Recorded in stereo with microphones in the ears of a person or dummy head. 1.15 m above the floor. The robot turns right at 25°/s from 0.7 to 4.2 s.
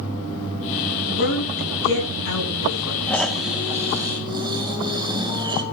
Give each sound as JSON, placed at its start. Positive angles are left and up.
{"t": 1.1, "sound": "a woman speaking", "side_deg": 50, "distance_m": 8.5}
{"t": 3.1, "sound": "snoring", "side_deg": 5, "distance_m": 1.9}